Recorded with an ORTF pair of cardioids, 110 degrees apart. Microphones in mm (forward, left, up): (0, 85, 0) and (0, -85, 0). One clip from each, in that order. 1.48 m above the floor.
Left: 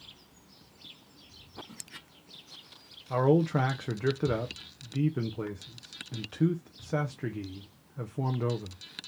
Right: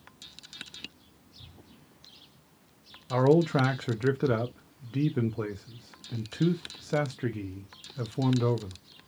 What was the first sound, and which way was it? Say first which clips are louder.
A man speaking: right 2 dB; 10° right.